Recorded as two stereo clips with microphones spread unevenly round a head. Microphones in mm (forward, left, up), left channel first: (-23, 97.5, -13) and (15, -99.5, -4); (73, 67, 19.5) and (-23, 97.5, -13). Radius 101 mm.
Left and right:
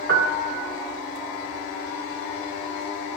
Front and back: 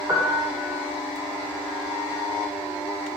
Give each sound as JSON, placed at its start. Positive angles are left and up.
{"t": 0.1, "sound": "a piano", "azimuth_deg": -115, "distance_m": 2.0}